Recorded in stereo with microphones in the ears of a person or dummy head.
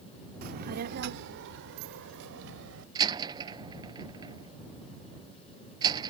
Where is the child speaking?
50° right (ahead or behind); by 2.9 s 80° right.